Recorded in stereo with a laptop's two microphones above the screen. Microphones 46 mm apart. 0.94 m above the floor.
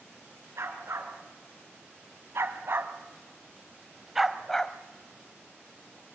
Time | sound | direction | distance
0.6 | a dog barking | 80° right | 3.5 m